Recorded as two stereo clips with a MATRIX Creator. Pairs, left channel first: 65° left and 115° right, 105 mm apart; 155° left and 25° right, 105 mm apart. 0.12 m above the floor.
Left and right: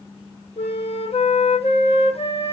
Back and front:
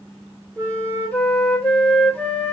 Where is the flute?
80° left, 2.5 m.